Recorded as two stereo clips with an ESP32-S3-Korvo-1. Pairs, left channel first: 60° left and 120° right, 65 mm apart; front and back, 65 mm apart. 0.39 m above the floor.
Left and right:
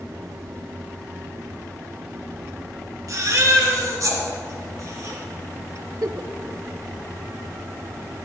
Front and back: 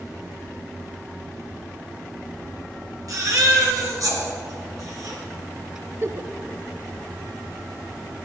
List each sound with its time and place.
3.1 s a baby crying: 155° right, 3.5 m
6.0 s a giggle: 135° right, 0.6 m